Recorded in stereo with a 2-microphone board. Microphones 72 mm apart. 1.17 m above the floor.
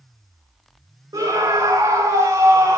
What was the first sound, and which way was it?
A scream, 75° right (ahead or behind).